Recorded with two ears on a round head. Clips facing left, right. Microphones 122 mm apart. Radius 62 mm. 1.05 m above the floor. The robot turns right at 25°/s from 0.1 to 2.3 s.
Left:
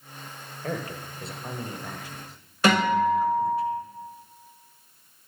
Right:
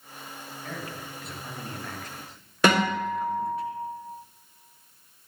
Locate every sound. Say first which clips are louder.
0.6 s a man speaking: left 6 dB; 135° left, 1.0 m; by 3.6 s straight behind, 1.0 m
2.6 s a guitar: left 2 dB; 65° right (ahead or behind), 4 m